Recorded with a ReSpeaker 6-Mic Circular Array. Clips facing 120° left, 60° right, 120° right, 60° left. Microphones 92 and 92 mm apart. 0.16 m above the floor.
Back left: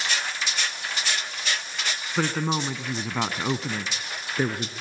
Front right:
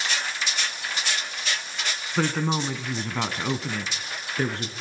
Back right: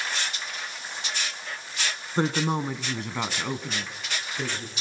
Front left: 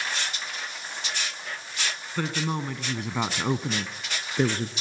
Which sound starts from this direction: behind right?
A woman speaking, at 2.2 s.